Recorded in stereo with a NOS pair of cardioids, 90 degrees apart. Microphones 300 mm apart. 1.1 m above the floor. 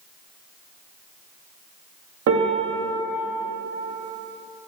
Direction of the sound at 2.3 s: 60° right.